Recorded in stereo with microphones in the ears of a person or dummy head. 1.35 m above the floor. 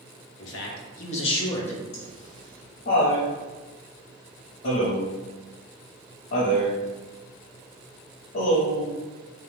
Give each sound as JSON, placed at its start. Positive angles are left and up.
{"t": 0.4, "sound": "a man speaking", "side_deg": 70, "distance_m": 1.0}
{"t": 1.9, "sound": "laughter", "side_deg": 60, "distance_m": 0.9}